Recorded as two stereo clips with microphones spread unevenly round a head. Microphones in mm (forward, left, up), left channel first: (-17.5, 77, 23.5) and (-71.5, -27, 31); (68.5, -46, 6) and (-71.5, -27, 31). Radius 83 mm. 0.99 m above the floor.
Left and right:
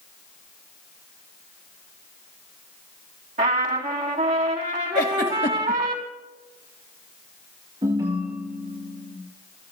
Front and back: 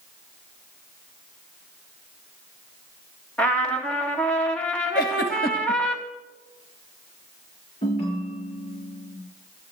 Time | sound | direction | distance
3.4 | a trumpet | 85° right | 3 m
5.0 | a giggle | 35° left | 1.9 m
7.8 | a ringtone | 55° right | 8 m